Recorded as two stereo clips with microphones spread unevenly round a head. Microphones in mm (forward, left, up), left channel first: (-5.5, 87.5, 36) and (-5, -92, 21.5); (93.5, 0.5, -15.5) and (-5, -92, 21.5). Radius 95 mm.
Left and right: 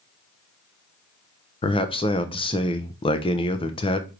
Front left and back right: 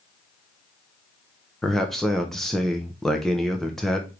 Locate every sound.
1.6 s a man speaking: 85° left, 0.5 m